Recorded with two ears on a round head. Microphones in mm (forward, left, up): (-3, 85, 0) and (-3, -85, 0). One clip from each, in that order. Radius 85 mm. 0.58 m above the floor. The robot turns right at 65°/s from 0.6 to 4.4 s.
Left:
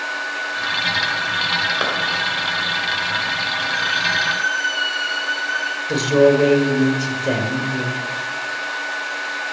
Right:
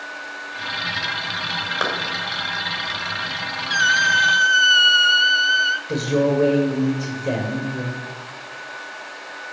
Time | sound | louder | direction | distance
1.8 | a clap | left 2 dB | centre (ahead or behind) | 2.5 m
3.7 | a squeak | right 6 dB | 90° right | 0.8 m
5.9 | a man speaking | left 6 dB | 35° left (ahead or behind) | 1.9 m